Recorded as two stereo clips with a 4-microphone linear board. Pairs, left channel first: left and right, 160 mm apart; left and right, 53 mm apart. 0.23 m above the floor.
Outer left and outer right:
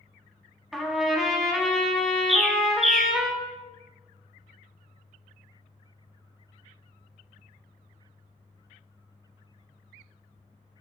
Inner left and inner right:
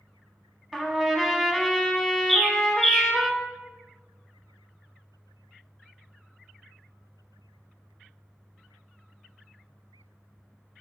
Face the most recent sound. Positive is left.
turn(degrees=0)  # may be behind; listen again after turning